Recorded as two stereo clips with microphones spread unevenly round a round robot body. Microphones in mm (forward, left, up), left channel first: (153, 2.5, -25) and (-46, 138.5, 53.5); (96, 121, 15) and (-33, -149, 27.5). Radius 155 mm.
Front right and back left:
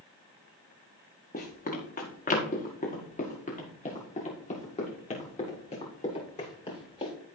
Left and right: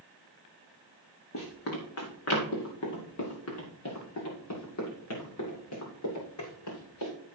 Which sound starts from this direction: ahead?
Running footsteps, at 1.3 s.